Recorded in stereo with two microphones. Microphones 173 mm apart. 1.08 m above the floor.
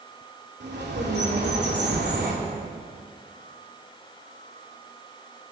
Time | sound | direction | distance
0.6 | a bird | 75° right (ahead or behind) | 3 m